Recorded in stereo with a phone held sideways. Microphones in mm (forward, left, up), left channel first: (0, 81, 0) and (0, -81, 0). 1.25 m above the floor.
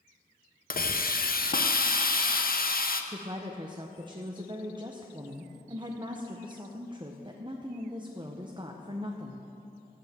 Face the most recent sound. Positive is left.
turn(degrees=-30)  # may be behind; listen again after turning